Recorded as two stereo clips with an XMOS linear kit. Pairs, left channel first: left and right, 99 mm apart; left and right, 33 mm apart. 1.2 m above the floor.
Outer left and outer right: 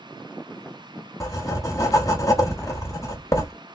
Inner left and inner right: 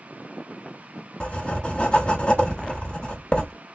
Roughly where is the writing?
Left.